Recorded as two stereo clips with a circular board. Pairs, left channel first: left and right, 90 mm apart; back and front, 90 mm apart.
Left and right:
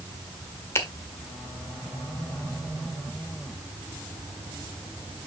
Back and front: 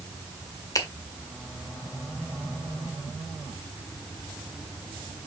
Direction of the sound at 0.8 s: 145° left.